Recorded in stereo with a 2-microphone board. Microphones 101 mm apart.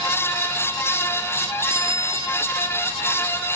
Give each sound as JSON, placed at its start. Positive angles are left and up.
{"t": 1.7, "sound": "a bicycle bell", "side_deg": -60}